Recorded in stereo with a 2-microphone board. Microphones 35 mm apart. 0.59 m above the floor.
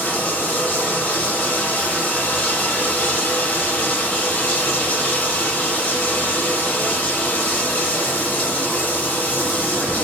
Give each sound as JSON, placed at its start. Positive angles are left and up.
{"t": 0.0, "sound": "running water", "side_deg": 50, "distance_m": 4.5}